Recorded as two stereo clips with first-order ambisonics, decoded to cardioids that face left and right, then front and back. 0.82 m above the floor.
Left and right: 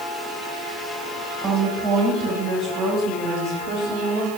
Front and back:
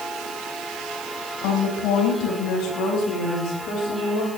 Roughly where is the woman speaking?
Ahead right.